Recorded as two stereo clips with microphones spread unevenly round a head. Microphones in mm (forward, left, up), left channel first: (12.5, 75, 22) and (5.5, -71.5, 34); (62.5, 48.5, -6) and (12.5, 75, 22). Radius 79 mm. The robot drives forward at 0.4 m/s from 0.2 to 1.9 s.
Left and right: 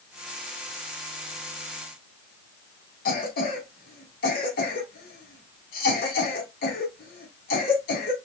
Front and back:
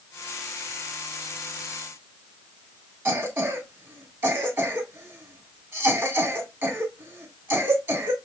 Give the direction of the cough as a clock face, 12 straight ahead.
8 o'clock.